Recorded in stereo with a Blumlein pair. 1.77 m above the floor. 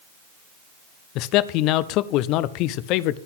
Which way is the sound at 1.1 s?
40° left.